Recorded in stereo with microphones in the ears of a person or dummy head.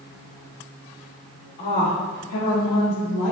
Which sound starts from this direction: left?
A woman speaking, at 1.6 s.